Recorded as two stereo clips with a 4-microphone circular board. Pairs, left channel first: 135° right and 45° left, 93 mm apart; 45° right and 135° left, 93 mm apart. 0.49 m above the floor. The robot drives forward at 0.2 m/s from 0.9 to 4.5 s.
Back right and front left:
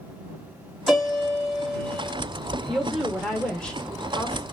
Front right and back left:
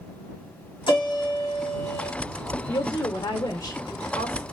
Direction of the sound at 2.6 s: 50° right.